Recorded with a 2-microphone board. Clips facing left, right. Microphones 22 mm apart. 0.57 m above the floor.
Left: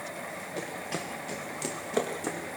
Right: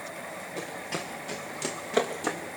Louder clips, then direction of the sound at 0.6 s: Right 1 dB; 10° left (ahead or behind).